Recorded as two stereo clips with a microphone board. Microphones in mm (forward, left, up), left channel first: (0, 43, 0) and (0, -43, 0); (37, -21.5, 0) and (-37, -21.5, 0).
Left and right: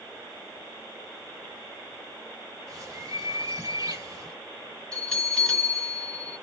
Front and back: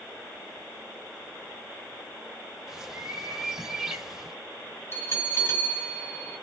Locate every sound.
2.7 s a bird: 100° right, 1.1 m
4.9 s a bell: 15° left, 1.6 m